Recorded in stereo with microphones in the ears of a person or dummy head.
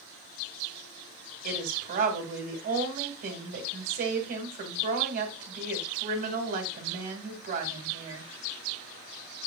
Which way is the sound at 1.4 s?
45° right (ahead or behind).